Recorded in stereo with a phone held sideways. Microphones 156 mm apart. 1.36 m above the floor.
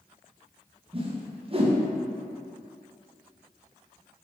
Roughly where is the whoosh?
Right.